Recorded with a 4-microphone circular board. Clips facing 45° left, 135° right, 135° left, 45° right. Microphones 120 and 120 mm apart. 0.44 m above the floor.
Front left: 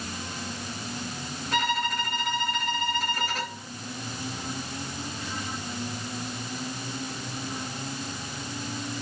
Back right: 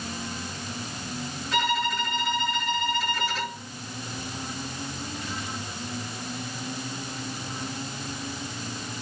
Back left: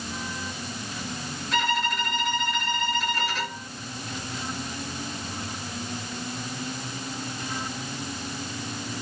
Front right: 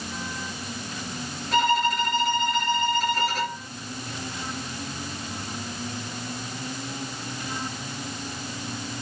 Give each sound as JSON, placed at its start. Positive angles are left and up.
{"t": 1.5, "sound": "a violin", "azimuth_deg": 0, "distance_m": 4.5}